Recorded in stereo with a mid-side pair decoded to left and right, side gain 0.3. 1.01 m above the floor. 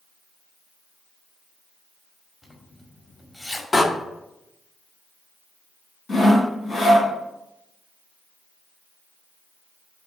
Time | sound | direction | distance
2.4 | a zipper | 25° left | 1.8 m
3.7 | a door slam | 45° left | 1.2 m
6.1 | sawing | 70° left | 3 m